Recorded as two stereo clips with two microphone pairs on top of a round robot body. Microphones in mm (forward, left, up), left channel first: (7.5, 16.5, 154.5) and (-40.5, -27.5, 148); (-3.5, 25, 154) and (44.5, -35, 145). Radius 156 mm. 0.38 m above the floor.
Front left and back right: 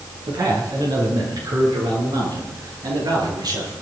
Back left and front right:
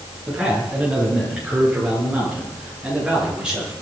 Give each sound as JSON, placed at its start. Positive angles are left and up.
{"t": 0.3, "sound": "a man speaking", "azimuth_deg": -130, "distance_m": 6.5}